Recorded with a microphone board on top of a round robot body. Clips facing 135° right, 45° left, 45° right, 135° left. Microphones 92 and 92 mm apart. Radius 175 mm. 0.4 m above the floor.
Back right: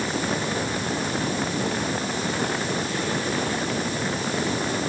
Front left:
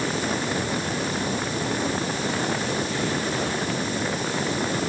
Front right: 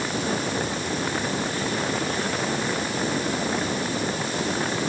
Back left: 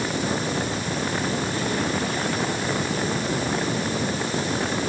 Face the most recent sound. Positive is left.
No sound to turn to.